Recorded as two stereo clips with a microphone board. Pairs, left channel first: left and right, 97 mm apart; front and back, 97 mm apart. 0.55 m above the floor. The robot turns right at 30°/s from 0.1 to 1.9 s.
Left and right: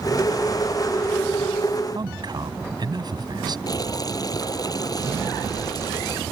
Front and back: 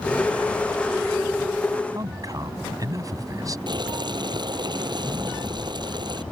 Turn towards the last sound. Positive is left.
turn(degrees=140)